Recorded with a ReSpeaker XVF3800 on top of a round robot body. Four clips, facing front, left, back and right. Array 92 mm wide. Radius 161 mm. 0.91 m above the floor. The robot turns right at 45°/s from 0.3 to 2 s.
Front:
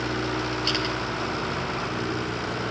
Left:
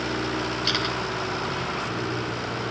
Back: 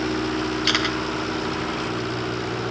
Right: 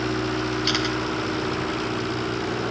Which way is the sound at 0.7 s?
175° right.